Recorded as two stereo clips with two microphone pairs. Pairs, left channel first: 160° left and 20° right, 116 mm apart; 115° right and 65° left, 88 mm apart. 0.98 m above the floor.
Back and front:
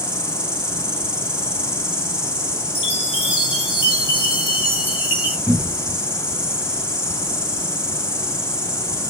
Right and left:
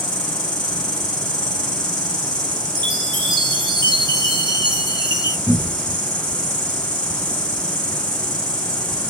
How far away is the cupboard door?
About 0.7 m.